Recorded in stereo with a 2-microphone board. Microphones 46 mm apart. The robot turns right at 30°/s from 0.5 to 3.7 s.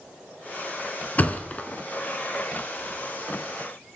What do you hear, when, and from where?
1.2 s a thud: 35° left (ahead or behind), 0.7 m